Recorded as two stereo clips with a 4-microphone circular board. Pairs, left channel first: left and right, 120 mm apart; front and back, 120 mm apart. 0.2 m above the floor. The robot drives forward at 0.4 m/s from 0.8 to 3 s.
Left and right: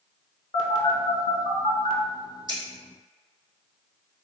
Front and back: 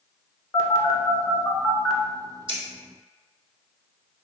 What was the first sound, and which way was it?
A phone buzzing, 55° left.